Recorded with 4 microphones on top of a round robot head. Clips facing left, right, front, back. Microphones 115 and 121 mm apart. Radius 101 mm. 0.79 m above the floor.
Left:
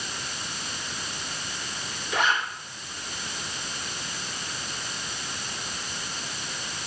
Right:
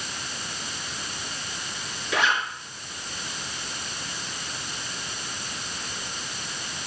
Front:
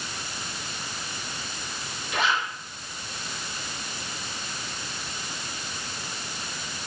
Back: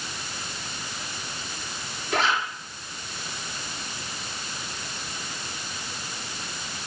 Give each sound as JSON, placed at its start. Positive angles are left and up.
{"t": 2.1, "sound": "a zipper", "azimuth_deg": -120, "distance_m": 4.5}